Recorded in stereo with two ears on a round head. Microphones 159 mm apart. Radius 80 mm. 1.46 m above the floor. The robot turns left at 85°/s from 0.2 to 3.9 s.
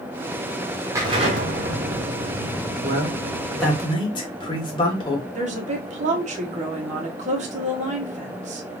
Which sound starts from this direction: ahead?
An explosion, at 0.9 s.